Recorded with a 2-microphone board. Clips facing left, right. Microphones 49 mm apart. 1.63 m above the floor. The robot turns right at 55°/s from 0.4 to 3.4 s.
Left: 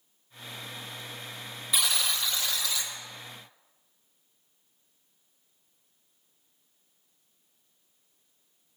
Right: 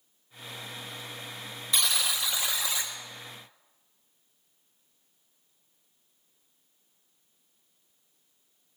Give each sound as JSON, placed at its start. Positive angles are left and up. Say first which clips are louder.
{"t": 1.7, "sound": "a buzzer", "louder": "even", "azimuth_deg": 170, "distance_m": 1.2}